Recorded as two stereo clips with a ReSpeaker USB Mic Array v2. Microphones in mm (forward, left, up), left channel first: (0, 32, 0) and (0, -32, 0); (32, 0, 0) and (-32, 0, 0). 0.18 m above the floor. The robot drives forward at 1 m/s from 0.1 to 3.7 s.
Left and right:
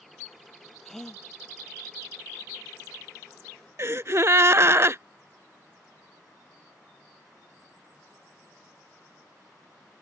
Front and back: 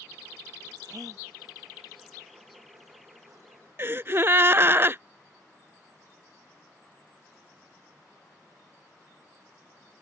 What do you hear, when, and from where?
0.8 s a gasp: 175° left
3.8 s a gasp: 130° right